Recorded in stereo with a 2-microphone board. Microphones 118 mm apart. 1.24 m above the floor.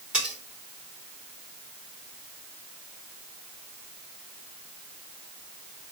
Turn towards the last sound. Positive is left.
turn(degrees=-10)  # may be behind; listen again after turning